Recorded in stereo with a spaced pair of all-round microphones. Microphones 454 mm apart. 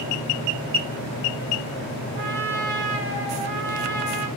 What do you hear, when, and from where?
2.1 s a trumpet: 30° right (ahead or behind), 2.5 m